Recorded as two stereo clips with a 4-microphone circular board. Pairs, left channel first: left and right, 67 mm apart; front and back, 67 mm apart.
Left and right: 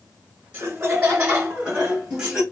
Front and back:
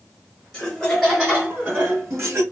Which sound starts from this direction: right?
Laughter, at 0.5 s.